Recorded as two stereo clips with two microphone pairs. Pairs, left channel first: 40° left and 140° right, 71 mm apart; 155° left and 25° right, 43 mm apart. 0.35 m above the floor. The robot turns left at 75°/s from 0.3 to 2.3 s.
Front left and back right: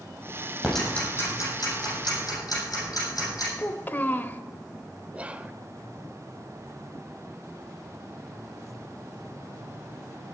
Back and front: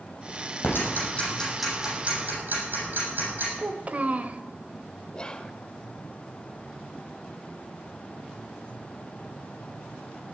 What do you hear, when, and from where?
0.6 s ticking: 130° left, 7 m; by 3.5 s 5° left, 7 m
3.6 s a child speaking: 10° right, 0.8 m
5.1 s whispering: straight behind, 0.9 m